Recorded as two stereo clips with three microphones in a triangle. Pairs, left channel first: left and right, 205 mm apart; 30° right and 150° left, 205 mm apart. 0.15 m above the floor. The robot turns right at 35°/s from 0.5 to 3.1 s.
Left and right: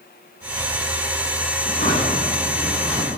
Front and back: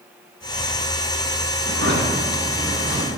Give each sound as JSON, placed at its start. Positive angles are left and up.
{"t": 1.6, "sound": "a drawer", "azimuth_deg": 130, "distance_m": 4.0}